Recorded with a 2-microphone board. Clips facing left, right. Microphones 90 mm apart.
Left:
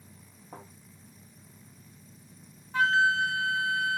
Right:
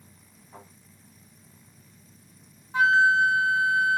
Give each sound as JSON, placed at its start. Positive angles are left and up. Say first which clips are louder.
{"t": 0.5, "sound": "a thud", "louder": "left 2 dB", "side_deg": 80, "distance_m": 4.0}
{"t": 2.7, "sound": "a flute", "louder": "right 5 dB", "side_deg": -20, "distance_m": 0.5}